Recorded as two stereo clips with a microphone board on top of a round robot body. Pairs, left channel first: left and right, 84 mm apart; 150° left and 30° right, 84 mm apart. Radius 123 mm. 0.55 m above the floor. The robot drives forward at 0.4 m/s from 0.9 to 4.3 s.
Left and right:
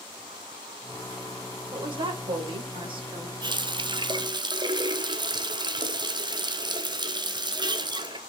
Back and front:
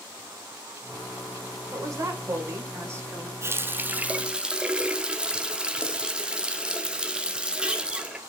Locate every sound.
1.7 s a woman speaking: 80° right, 3 m; by 3.3 s 95° right, 3 m
3.4 s a running tap: 85° right, 1.0 m; by 8.2 s 110° right, 1.1 m